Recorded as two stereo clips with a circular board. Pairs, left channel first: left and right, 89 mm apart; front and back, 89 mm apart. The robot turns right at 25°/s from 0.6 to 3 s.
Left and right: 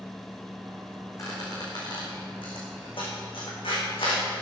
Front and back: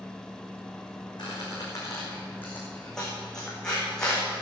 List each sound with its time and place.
1.2 s a squeak: 40° left, 4 m; by 4.2 s 85° left, 4 m